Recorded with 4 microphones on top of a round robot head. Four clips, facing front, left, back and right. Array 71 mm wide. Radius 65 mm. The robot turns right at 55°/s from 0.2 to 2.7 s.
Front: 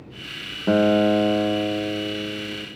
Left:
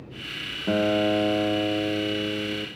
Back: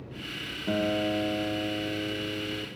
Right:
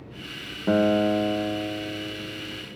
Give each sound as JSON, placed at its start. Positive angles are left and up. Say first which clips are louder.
{"t": 0.7, "sound": "a guitar", "louder": "right 2 dB, front 10 dB", "azimuth_deg": -20, "distance_m": 0.9}